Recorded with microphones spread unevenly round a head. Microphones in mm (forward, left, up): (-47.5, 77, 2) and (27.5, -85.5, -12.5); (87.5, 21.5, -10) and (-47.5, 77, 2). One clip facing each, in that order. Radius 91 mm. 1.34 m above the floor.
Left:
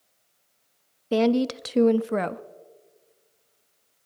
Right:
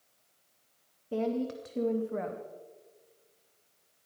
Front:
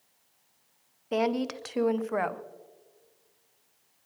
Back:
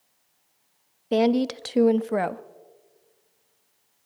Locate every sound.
1.1 s a woman speaking: 100° left, 0.6 m